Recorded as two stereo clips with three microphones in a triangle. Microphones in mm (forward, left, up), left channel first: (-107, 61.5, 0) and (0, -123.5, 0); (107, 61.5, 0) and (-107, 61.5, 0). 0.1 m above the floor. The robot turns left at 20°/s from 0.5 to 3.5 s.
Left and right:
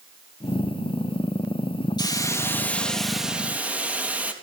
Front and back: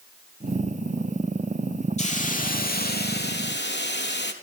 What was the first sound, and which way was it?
A hiss, 50° left.